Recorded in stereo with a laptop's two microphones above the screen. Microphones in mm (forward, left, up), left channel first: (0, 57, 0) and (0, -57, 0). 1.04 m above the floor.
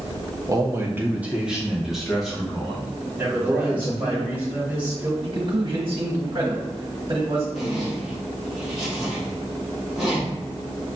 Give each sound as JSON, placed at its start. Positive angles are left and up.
{"t": 0.5, "sound": "a man speaking", "side_deg": -30, "distance_m": 0.5}
{"t": 3.2, "sound": "a man speaking", "side_deg": -15, "distance_m": 1.6}
{"t": 5.2, "sound": "a man speaking", "side_deg": -45, "distance_m": 1.2}
{"t": 7.5, "sound": "a zipper", "side_deg": 0, "distance_m": 1.2}